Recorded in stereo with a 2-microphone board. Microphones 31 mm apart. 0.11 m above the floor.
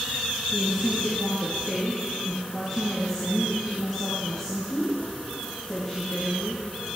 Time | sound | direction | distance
0.5 | a woman speaking | centre (ahead or behind) | 5.5 m